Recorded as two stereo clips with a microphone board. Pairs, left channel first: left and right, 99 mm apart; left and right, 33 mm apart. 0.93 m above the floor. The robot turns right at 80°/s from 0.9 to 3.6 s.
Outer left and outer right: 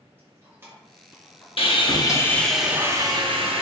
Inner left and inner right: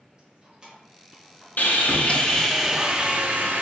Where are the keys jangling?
20° right (ahead or behind), 1.4 m; by 2.6 s 65° left (ahead or behind), 1.4 m.